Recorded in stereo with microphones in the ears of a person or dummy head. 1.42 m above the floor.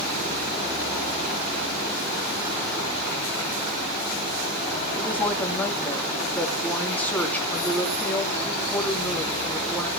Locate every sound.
5.0 s a woman speaking: 10° left (ahead or behind), 2.5 m